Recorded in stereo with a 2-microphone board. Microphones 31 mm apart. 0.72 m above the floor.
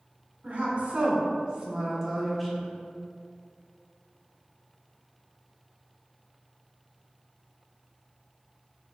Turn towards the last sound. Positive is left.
turn(degrees=15)  # may be behind; listen again after turning